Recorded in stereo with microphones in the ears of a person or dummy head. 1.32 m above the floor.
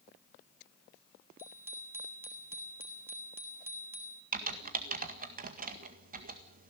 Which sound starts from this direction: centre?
A bicycle bell, at 1.4 s.